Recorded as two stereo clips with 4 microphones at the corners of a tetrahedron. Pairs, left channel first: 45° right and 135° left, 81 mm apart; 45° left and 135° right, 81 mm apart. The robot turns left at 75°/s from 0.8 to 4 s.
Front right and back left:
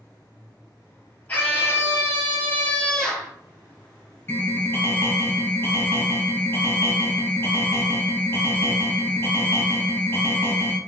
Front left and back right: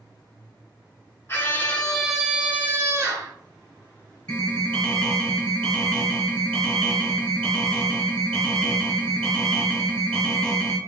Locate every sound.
1.3 s a scream: 10° left, 1.3 m; by 3.3 s 145° right, 1.3 m
4.3 s an alarm: 20° right, 0.9 m